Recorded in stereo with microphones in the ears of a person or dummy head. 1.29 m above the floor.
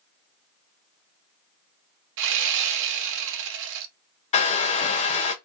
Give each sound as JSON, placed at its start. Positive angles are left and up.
{"t": 2.2, "sound": "sawing", "side_deg": -70, "distance_m": 0.6}
{"t": 4.3, "sound": "a hair dryer", "side_deg": 35, "distance_m": 0.5}